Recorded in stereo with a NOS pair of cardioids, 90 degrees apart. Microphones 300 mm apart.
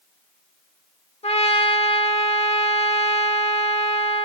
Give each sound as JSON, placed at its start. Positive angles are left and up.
{"t": 1.2, "sound": "a trumpet", "azimuth_deg": 20, "distance_m": 1.8}